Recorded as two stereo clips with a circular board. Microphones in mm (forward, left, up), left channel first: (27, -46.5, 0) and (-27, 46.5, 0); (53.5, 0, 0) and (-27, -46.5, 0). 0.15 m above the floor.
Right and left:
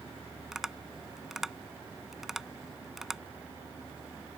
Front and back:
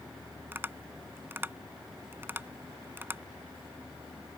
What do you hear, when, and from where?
0.5 s tapping: 160° right